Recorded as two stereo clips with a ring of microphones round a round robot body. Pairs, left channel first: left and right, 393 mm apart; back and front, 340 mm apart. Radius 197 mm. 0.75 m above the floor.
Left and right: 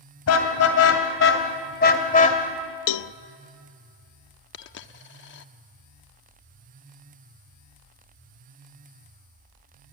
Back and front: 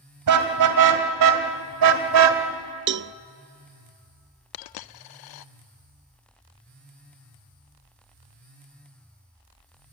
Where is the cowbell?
60° left, 0.6 m.